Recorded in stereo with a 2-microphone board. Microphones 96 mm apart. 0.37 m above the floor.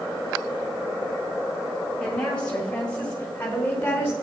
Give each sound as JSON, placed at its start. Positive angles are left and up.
{"t": 2.0, "sound": "a woman speaking", "side_deg": 10, "distance_m": 5.0}